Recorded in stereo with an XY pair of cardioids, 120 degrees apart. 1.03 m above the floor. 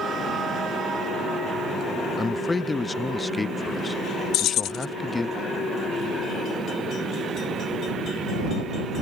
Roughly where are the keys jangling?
Left.